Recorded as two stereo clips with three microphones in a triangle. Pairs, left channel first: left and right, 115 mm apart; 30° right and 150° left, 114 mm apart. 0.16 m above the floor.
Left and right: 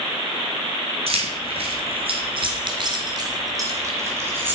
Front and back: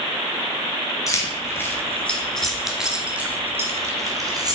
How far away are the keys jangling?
About 1.9 m.